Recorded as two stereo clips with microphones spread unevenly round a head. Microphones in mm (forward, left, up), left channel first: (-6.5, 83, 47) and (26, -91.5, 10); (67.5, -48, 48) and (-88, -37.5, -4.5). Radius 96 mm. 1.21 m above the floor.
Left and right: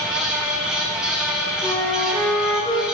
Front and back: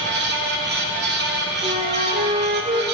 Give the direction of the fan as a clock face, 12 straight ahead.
6 o'clock.